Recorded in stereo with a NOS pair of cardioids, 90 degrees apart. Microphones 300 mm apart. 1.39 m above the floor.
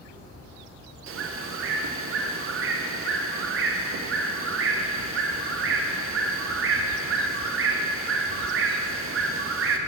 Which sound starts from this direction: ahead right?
A bird, at 1.1 s.